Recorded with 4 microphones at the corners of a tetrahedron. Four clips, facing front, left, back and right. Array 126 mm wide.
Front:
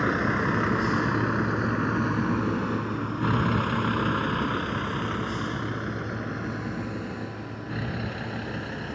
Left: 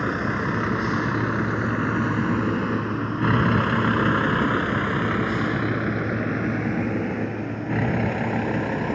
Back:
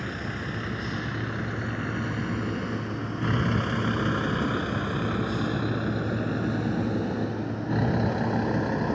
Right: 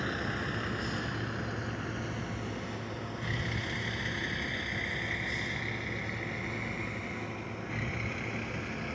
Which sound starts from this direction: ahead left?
A vehicle, at 0.0 s.